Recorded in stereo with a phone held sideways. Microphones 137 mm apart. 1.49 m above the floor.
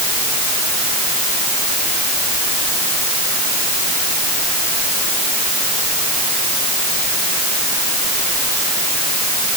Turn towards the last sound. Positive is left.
No sound to turn to.